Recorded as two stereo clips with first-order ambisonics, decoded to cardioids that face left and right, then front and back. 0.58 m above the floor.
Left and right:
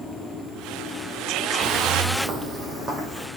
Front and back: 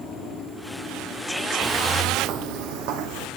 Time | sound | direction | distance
1.6 | footsteps | 110° right | 0.8 m